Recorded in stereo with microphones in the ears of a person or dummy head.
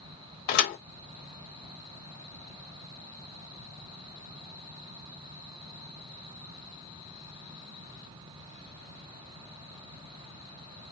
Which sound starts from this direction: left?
A thud, at 0.5 s.